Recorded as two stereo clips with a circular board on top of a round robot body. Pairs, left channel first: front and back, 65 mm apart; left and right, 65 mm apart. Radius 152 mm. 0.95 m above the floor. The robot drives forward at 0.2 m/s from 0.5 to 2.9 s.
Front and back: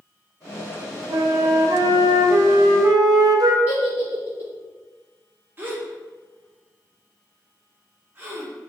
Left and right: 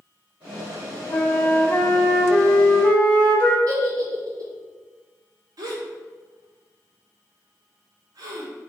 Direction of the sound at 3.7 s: 120° right.